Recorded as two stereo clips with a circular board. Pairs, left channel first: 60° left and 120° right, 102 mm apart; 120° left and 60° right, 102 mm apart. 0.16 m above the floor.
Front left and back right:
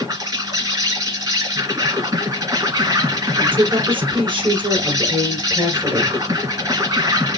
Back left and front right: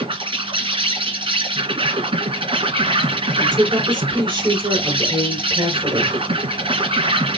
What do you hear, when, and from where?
0.0 s an insect: 80° right, 2.5 m
3.4 s a woman speaking: 100° right, 3 m